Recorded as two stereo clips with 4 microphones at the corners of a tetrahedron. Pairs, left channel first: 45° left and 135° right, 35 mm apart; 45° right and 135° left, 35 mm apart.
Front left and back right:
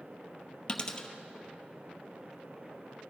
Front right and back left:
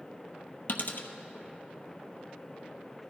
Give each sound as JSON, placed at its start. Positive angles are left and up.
{"t": 0.7, "sound": "a dropped coin", "azimuth_deg": -15, "distance_m": 0.8}